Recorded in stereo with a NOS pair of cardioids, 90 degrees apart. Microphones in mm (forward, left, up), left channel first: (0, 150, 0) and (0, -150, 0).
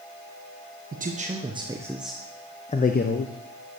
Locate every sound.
0.9 s a man speaking: 30° right, 1.7 m; by 3.3 s 45° left, 1.2 m